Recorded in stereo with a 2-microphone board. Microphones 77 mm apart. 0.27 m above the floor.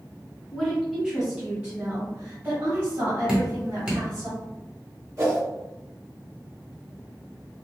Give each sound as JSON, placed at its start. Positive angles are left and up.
{"t": 0.5, "sound": "a woman speaking", "side_deg": 0, "distance_m": 1.3}
{"t": 3.3, "sound": "dripping", "side_deg": -15, "distance_m": 1.1}
{"t": 5.2, "sound": "a whoosh", "side_deg": -40, "distance_m": 1.5}